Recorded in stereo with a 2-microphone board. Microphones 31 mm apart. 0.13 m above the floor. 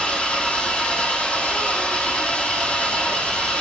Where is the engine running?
45° left (ahead or behind), 3 m.